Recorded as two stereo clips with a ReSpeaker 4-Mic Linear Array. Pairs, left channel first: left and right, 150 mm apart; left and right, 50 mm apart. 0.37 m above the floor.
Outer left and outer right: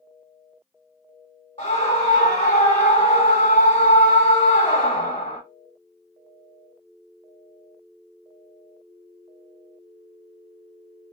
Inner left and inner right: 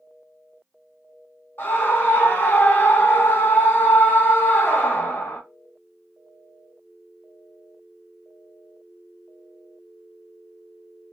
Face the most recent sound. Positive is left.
turn(degrees=40)  # may be behind; listen again after turning